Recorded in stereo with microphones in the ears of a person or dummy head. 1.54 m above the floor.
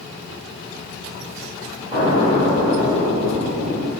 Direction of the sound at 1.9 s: 45° right (ahead or behind).